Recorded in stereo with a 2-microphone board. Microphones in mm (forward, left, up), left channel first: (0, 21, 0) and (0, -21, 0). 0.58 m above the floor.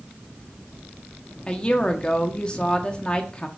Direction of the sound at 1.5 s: 20° left (ahead or behind).